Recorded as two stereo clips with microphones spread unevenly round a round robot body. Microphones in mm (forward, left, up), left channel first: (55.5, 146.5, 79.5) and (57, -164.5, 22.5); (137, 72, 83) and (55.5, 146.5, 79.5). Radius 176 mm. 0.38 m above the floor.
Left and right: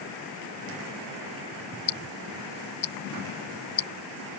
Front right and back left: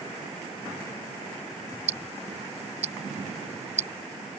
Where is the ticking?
155° left.